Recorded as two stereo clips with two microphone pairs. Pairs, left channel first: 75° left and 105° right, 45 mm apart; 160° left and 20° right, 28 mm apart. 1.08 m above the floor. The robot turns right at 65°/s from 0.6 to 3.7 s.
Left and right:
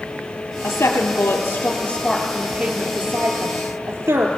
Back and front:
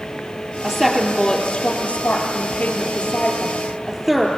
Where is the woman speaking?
50° left, 3 m; by 4.3 s 110° right, 3 m.